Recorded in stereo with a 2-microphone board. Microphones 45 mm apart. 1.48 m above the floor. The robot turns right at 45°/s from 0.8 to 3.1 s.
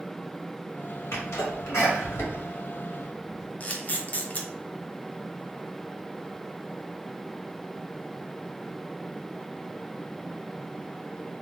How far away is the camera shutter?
About 0.6 m.